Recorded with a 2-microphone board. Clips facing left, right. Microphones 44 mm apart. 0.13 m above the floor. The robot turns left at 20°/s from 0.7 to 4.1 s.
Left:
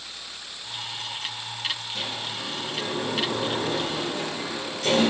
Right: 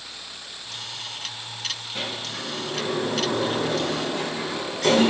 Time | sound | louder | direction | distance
1.9 | a sliding door | right 1 dB | 40° right (ahead or behind) | 7 m